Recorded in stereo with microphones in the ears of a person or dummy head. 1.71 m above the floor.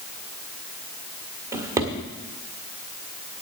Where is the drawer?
15° right (ahead or behind), 1.6 m.